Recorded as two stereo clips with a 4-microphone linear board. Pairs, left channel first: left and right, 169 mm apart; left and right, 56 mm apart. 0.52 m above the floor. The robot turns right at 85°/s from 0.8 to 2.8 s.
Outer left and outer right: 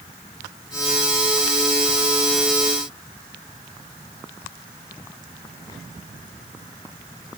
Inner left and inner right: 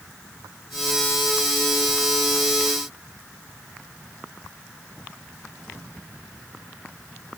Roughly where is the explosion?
No explosion in this recording.